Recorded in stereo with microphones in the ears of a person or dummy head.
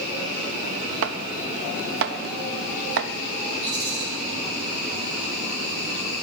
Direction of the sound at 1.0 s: 70° right (ahead or behind).